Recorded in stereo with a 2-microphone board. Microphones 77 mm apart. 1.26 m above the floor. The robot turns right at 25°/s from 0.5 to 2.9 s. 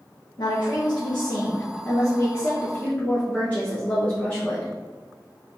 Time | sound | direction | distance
0.4 | a woman speaking | 100° left | 1.0 m